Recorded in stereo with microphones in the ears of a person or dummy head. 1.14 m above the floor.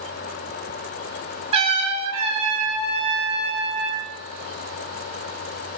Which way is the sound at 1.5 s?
30° right (ahead or behind).